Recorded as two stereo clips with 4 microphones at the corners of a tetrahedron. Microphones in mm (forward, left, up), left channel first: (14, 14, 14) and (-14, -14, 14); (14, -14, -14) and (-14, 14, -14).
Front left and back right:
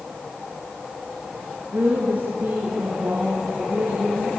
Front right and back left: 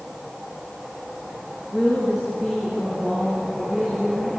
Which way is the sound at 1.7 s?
150° right.